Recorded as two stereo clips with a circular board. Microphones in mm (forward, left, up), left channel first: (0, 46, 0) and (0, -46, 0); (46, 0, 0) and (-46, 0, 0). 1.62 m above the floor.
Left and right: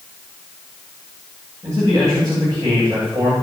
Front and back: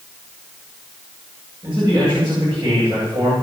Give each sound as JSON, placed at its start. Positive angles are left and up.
{"t": 1.6, "sound": "a man speaking", "azimuth_deg": -140, "distance_m": 9.0}